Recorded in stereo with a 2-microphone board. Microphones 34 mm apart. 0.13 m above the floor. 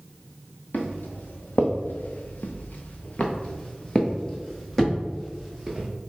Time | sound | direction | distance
0.7 | footsteps | 65° left (ahead or behind) | 1.4 m